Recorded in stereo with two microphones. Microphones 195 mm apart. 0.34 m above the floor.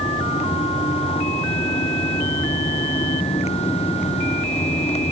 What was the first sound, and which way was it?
Only background noise.